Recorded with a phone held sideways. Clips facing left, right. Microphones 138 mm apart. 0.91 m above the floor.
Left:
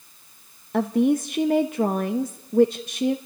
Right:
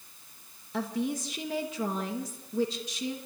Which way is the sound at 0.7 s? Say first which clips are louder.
Left 11 dB; 60° left (ahead or behind).